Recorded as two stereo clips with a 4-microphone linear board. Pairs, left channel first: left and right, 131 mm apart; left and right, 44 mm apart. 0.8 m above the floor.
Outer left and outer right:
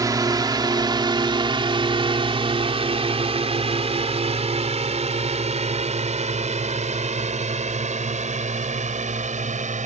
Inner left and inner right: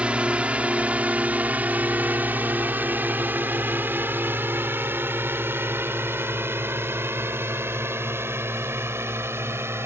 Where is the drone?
30° right (ahead or behind); by 9.9 s 70° right (ahead or behind).